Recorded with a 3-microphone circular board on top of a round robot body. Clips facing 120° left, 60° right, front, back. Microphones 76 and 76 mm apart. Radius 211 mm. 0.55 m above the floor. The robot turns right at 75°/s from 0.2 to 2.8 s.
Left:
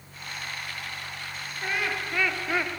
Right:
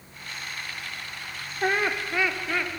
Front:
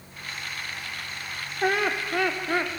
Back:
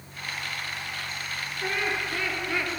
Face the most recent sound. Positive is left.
turn(degrees=65)